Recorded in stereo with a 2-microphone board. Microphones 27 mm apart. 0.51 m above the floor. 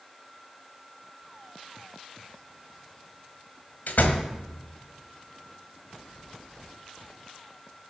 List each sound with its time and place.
3.9 s a door slam: 80° left, 1.6 m